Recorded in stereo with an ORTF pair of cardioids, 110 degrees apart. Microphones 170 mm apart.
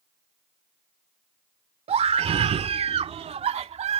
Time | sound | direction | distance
1.9 | a scream | 40° right | ?